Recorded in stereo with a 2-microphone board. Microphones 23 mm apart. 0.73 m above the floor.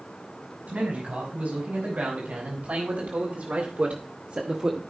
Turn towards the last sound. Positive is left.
turn(degrees=-25)  # may be behind; listen again after turning